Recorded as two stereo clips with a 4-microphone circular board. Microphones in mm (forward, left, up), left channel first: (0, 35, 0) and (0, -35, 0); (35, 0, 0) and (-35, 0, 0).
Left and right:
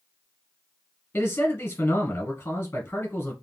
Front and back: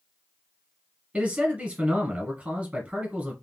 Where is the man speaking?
120° left, 1.2 m.